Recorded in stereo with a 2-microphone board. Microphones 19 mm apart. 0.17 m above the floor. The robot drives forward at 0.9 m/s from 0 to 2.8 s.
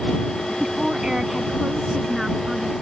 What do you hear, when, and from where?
0.6 s a woman speaking: 30° right (ahead or behind); by 2.7 s 15° right (ahead or behind)